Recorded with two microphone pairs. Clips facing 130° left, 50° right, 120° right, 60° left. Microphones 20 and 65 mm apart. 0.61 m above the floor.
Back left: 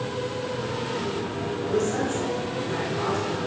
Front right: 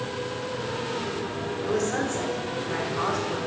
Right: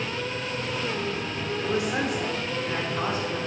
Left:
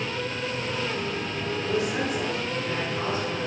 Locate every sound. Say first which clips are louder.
1.6 s a man speaking: back left 1 dB, right 1 dB; 55° right, 1.9 m